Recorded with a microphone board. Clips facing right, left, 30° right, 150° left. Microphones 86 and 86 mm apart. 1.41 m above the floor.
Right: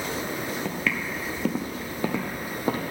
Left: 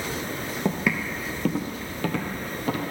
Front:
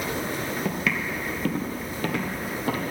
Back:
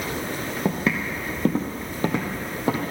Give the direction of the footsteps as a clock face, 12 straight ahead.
7 o'clock.